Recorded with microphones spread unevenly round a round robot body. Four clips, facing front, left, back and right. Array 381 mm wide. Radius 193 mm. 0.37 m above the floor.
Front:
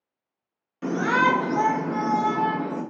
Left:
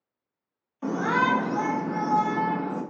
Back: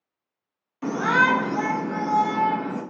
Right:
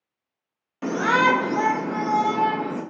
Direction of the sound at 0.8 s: 85° right.